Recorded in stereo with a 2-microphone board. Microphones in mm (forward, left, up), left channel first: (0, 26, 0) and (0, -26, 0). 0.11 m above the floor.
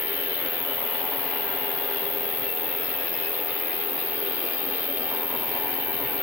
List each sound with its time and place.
0.0 s an insect: 35° left (ahead or behind), 0.9 m